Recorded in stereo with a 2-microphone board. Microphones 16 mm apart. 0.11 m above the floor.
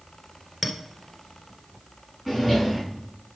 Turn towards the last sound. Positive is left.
turn(degrees=5)  # may be behind; listen again after turning